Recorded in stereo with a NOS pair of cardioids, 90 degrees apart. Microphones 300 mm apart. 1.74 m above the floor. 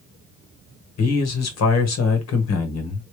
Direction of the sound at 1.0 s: 60° left.